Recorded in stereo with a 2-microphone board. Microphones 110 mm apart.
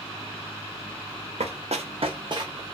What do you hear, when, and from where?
1.4 s running footsteps: 80° right, 0.6 m; by 2.6 s 30° right (ahead or behind), 0.7 m